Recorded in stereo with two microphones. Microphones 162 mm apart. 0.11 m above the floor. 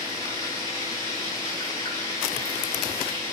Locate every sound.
0.0 s running water: 25° left (ahead or behind), 6.5 m